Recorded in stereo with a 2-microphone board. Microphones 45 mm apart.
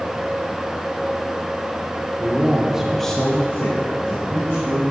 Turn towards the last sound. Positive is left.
turn(degrees=65)  # may be behind; listen again after turning